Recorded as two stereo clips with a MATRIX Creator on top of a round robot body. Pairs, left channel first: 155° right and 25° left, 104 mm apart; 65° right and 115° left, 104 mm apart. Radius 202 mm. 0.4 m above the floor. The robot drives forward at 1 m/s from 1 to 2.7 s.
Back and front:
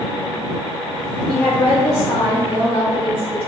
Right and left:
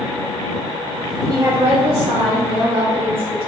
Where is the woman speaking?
125° left, 1.0 m; by 3.5 s 165° left, 1.9 m.